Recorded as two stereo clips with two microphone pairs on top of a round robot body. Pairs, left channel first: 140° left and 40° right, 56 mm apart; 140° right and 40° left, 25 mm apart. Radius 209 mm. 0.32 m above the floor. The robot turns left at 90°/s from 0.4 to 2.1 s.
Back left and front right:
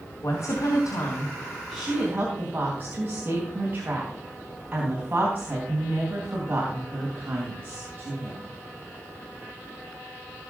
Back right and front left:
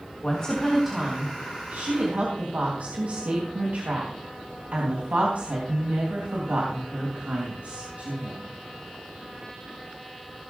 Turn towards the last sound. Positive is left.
turn(degrees=20)